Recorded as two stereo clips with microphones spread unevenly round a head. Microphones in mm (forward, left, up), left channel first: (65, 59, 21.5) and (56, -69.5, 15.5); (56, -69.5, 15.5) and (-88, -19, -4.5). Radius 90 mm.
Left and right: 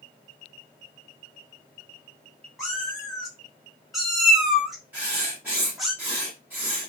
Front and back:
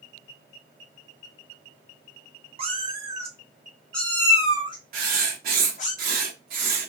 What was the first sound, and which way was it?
A cat meowing, 170° left.